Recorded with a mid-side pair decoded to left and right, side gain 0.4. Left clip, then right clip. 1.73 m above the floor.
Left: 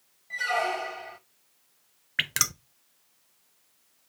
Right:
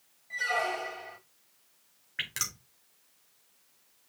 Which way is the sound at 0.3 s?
35° left.